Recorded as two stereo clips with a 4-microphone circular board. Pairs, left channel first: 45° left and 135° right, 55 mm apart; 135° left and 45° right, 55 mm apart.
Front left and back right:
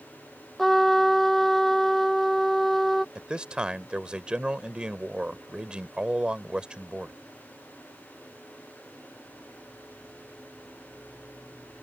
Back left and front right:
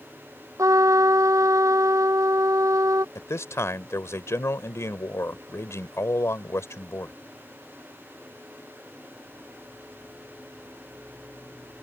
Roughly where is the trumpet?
Ahead right.